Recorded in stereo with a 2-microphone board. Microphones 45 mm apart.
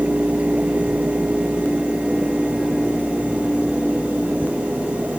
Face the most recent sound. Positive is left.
No sound to turn to.